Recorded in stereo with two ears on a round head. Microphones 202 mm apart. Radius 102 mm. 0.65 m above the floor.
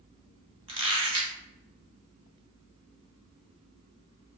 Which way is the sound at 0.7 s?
25° right (ahead or behind).